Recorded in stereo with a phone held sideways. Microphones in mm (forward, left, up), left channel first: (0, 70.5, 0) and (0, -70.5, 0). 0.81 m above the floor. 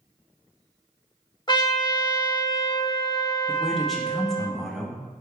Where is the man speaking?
Centre (ahead or behind), 0.7 m.